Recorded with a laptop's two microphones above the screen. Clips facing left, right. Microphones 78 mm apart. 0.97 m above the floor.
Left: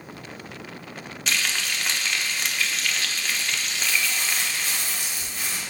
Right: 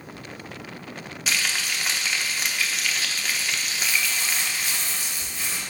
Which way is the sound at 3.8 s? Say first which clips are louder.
Left 1 dB; 65° left (ahead or behind).